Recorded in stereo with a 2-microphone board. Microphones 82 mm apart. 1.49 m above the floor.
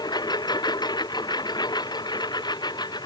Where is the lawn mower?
60° left (ahead or behind).